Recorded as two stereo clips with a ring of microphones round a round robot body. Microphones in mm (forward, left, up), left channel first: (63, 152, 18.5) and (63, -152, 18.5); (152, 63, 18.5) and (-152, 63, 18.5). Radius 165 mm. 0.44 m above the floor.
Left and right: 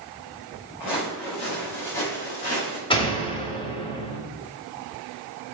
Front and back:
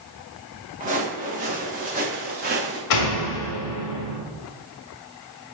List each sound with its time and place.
0.8 s footsteps: 115° left, 3.5 m; by 2.8 s 120° left, 4.5 m
2.9 s a door slam: 15° left, 1.6 m